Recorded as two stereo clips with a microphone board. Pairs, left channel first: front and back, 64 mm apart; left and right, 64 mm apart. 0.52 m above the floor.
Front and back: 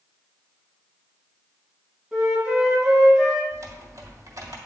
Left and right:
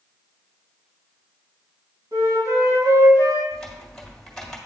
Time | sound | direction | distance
2.1 | a flute | 105° right | 3 m
3.5 | typing on a keyboard | 175° left | 1.6 m